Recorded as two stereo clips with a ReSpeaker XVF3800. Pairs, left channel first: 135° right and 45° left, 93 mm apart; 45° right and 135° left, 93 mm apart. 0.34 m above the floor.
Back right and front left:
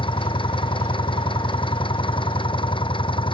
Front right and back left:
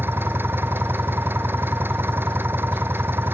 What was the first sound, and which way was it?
An engine running, 160° right.